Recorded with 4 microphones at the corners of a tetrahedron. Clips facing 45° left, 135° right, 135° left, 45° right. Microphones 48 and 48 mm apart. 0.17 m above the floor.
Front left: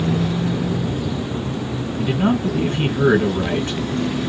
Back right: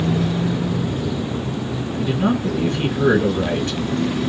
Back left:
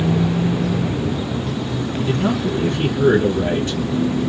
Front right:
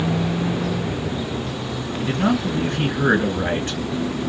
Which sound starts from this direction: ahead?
A man speaking, at 2.0 s.